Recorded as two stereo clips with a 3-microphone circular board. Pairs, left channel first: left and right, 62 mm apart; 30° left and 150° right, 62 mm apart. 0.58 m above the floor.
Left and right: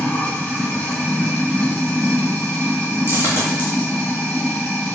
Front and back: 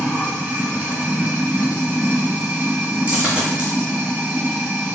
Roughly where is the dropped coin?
Behind left.